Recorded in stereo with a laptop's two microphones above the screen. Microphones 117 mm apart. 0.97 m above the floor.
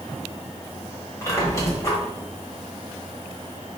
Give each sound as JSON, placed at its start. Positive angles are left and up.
{"t": 1.2, "sound": "a squeak", "side_deg": 25, "distance_m": 1.0}